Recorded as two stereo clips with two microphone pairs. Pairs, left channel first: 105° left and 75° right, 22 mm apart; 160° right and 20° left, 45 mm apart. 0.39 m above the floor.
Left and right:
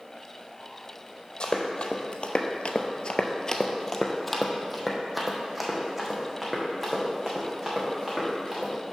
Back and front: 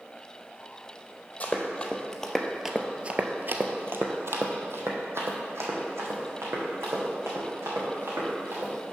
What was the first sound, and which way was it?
Running footsteps, 140° left.